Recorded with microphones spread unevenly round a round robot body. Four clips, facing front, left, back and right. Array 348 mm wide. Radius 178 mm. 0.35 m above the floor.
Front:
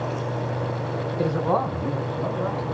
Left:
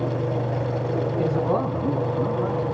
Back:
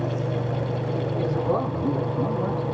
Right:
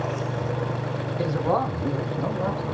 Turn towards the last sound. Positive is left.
turn(degrees=-85)